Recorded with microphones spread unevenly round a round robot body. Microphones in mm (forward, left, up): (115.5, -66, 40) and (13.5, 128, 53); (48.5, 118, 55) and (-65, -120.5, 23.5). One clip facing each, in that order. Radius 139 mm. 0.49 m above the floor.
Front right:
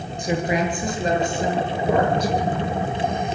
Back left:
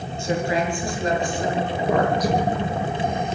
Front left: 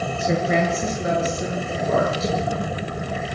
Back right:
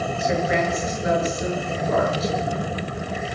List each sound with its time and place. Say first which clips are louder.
0.2 s a woman speaking: front right 1 dB, front left 2 dB; 10° left, 9.5 m; by 2.3 s straight ahead, 10 m